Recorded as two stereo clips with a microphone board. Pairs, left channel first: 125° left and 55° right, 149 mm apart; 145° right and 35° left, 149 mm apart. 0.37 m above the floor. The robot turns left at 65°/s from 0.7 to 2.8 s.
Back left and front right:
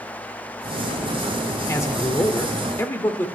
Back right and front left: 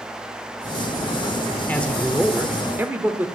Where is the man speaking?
155° left, 1.0 m; by 3.3 s 85° left, 1.0 m.